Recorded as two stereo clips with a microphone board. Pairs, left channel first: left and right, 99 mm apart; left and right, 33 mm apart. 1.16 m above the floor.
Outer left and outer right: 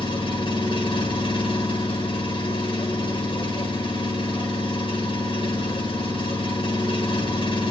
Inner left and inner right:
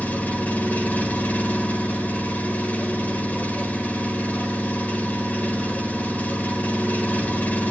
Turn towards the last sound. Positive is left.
turn(degrees=55)  # may be behind; listen again after turning